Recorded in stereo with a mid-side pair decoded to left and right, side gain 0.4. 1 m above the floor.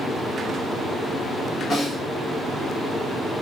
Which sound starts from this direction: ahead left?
A snare drum, at 1.7 s.